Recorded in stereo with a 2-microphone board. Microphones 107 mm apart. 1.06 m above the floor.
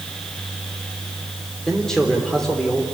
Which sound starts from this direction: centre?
A man speaking, at 1.7 s.